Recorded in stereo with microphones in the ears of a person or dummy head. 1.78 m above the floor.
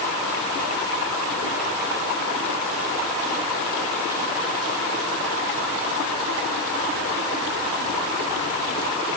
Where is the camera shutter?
I don't hear a camera shutter.